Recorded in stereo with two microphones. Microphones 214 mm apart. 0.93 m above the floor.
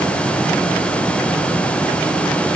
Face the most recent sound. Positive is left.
No sound to turn to.